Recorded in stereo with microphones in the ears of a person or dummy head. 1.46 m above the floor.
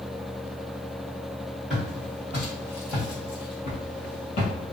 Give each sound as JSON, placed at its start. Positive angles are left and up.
{"t": 1.7, "sound": "footsteps", "side_deg": 0, "distance_m": 1.9}